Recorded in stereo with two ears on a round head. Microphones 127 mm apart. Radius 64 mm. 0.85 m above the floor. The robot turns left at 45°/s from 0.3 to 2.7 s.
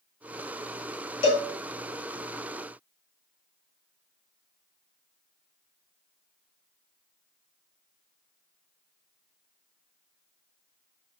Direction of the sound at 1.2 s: 45° left (ahead or behind).